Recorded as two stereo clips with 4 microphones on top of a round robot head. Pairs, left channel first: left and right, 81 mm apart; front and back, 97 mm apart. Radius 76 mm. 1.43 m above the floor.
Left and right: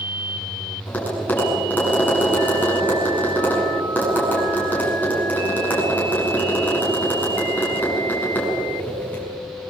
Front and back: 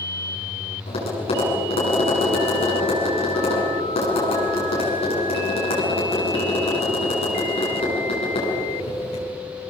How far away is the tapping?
About 8.5 m.